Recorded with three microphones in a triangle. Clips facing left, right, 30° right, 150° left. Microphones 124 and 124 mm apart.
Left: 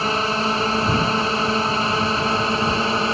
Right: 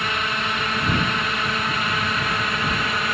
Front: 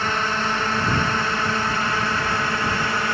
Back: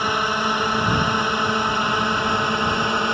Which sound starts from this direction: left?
A drone, at 0.0 s.